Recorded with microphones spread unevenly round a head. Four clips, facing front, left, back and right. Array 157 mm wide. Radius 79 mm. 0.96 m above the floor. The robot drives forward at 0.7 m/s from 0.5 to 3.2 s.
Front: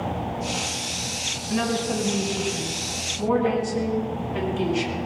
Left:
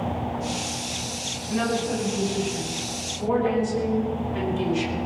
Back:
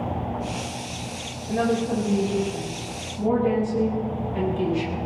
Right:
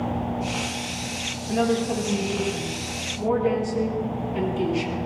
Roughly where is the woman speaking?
Behind right.